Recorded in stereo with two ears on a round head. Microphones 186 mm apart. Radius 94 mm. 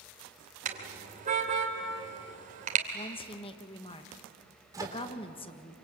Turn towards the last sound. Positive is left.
turn(degrees=-20)  # may be behind; listen again after turning